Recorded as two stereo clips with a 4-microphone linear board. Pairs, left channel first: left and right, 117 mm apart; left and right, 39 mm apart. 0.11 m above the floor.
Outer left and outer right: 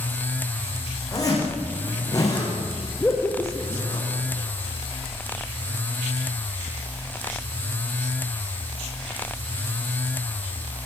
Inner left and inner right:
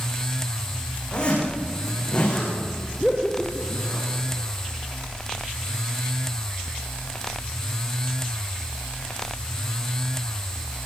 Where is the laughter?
15° left (ahead or behind), 3.5 m.